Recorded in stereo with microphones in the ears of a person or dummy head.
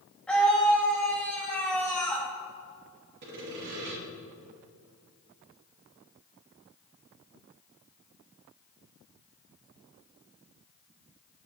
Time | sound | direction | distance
0.3 | a scream | 5° left (ahead or behind) | 1.8 m
3.2 | sawing | 55° right (ahead or behind) | 2.5 m